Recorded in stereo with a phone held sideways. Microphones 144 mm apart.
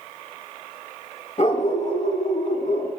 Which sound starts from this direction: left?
A dog barking, at 1.4 s.